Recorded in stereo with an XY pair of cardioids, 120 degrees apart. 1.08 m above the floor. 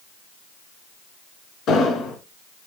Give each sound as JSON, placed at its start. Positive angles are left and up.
{"t": 1.7, "sound": "an explosion", "azimuth_deg": 70, "distance_m": 3.0}